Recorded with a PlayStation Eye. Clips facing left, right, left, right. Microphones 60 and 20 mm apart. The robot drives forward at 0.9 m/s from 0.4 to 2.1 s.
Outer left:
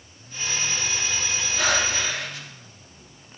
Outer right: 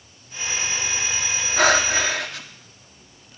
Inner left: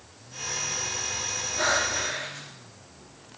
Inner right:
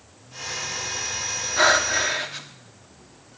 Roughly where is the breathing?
Right.